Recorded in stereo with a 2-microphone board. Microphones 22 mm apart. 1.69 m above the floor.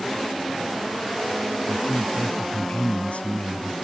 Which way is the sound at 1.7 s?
85° left.